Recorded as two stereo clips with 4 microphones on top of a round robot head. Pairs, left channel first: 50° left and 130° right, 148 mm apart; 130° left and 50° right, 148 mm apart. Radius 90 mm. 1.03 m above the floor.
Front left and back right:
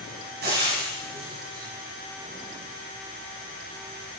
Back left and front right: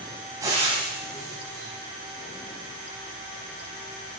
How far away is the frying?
About 6.5 m.